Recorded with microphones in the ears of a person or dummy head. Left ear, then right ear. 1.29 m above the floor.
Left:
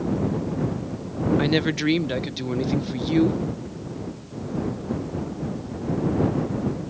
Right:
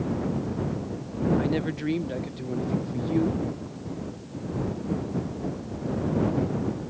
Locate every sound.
1.4 s a woman speaking: 40° left (ahead or behind)